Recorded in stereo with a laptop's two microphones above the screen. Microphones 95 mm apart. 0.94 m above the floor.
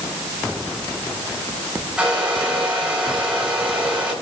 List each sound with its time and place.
2.0 s a hair dryer: 10° right (ahead or behind), 6 m